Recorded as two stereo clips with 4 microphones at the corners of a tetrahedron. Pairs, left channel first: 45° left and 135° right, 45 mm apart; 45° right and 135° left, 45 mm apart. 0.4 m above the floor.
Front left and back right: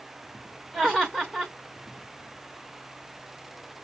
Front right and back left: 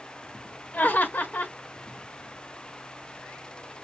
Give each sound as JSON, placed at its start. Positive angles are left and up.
{"t": 0.7, "sound": "laughter", "azimuth_deg": -25, "distance_m": 1.0}